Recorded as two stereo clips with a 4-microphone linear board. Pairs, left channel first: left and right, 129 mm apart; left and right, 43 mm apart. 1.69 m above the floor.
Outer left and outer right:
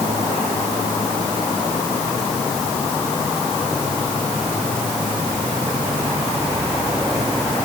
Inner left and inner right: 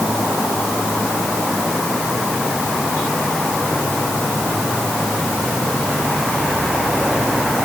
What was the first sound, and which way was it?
Only background noise.